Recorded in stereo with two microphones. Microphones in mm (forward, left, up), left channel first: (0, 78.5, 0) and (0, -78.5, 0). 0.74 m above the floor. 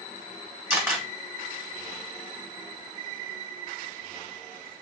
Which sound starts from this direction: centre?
A camera shutter, at 0.7 s.